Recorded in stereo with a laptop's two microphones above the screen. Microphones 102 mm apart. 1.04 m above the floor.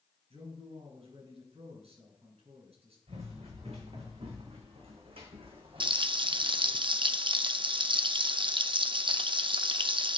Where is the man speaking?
90° right, 5.5 m.